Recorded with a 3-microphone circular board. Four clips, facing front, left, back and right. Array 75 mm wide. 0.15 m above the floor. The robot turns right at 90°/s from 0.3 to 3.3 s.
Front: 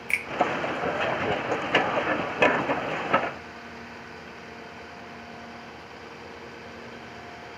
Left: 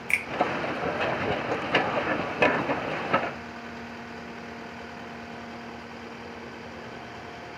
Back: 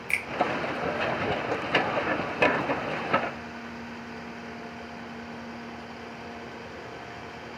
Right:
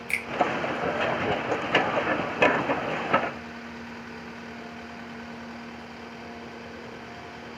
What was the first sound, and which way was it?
A finger snap, 70° left.